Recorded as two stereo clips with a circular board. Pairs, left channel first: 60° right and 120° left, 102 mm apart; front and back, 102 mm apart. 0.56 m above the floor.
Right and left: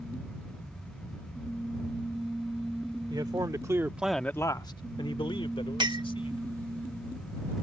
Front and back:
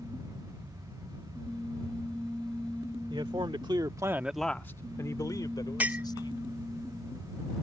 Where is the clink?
110° left.